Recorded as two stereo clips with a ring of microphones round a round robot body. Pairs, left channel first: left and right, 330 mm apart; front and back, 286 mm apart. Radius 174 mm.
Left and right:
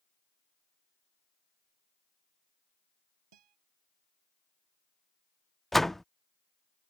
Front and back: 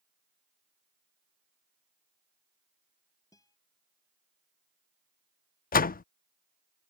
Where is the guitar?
80° right.